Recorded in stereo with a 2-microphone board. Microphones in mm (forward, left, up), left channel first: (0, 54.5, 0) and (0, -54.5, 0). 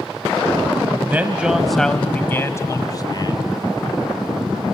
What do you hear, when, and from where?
1.1 s a man speaking: 15° right (ahead or behind), 1.2 m; by 3.4 s 45° left (ahead or behind), 1.6 m